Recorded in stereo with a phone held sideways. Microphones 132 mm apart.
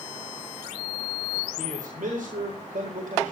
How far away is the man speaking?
About 4 m.